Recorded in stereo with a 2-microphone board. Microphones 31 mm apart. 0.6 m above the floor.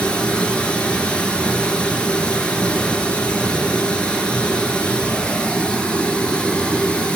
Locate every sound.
0.0 s running water: 30° left (ahead or behind), 1.9 m